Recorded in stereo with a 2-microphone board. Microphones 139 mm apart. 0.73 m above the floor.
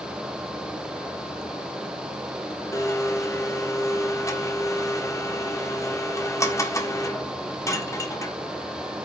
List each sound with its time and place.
2.7 s a blender: 25° left (ahead or behind), 1.7 m